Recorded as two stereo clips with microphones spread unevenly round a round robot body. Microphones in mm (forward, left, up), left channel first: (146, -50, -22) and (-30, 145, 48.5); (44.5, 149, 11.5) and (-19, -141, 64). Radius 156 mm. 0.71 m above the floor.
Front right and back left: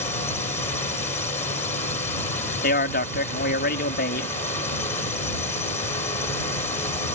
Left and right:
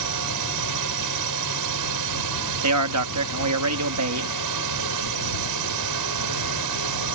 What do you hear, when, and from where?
0.0 s a drone: 125° right
2.6 s a man speaking: 75° right